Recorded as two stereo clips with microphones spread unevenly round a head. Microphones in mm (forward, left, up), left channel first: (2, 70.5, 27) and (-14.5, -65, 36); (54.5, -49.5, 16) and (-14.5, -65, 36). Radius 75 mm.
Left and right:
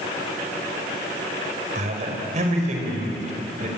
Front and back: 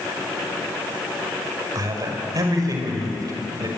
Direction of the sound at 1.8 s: 135° right.